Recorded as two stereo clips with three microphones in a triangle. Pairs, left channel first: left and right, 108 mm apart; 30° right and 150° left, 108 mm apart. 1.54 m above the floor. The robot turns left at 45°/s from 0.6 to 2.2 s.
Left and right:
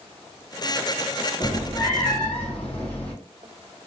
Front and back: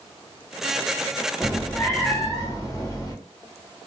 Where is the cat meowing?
50° left, 1.2 m; by 3.1 s 15° left, 1.2 m.